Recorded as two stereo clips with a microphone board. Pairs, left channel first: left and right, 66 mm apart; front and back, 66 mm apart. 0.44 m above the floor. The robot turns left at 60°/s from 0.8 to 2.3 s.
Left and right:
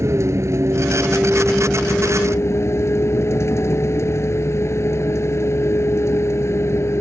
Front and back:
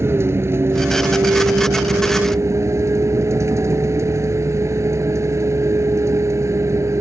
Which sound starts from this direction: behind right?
A vehicle, at 0.0 s.